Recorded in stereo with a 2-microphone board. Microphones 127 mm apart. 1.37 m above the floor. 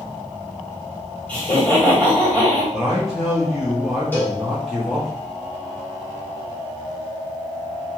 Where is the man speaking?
Centre (ahead or behind), 0.6 m.